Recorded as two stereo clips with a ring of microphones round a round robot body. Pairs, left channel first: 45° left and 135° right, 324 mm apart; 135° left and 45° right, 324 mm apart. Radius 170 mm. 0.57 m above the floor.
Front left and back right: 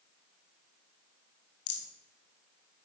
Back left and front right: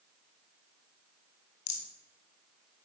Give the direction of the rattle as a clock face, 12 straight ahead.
9 o'clock.